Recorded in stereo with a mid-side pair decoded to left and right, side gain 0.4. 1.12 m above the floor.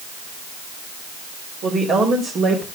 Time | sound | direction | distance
1.6 | a woman speaking | 70° right | 3.5 m